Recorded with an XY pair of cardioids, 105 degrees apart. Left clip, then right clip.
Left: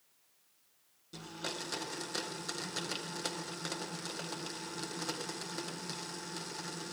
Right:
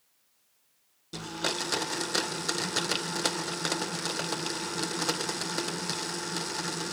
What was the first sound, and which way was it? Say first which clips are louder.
A blender: right 9 dB; 55° right.